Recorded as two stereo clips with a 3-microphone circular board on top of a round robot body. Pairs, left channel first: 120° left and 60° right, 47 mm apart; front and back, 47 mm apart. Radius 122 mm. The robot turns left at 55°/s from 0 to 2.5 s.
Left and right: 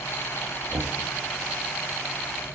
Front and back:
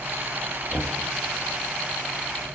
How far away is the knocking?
About 1.0 m.